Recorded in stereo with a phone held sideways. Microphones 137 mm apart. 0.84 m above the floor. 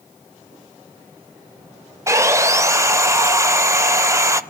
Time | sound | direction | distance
2.1 | sawing | 20° right (ahead or behind) | 0.8 m